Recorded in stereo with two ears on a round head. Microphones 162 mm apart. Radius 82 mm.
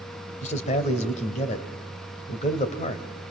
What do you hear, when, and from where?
0.4 s a man speaking: 40° left (ahead or behind), 2.5 m